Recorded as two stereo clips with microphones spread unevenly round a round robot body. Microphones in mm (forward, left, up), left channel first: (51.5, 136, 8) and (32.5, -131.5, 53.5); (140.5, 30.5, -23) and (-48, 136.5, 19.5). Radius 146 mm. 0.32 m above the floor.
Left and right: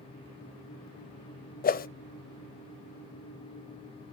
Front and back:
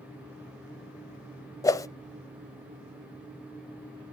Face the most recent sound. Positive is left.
turn(degrees=40)